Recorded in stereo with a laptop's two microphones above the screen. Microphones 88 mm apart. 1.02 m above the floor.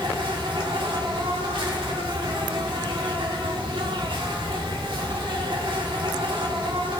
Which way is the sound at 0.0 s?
70° right (ahead or behind).